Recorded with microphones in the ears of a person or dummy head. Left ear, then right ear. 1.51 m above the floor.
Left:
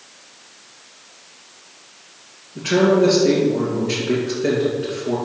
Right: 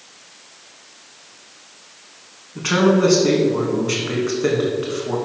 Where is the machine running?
I don't hear a machine running.